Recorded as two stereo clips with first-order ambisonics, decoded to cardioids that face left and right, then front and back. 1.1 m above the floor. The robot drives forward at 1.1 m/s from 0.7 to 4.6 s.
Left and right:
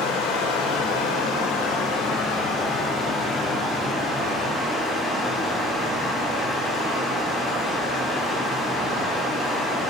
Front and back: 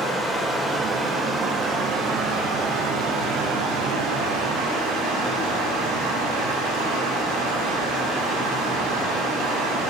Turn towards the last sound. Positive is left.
turn(degrees=155)